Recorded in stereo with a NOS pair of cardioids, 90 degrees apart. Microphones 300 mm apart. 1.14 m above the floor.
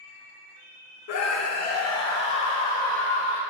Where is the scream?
60° left, 0.7 m.